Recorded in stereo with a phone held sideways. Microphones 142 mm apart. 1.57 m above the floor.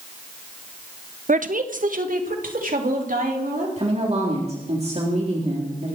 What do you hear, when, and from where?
1.3 s a woman speaking: 65° right (ahead or behind), 0.9 m; by 3.7 s 75° right (ahead or behind), 4.5 m
3.8 s a woman speaking: 50° right (ahead or behind), 3.5 m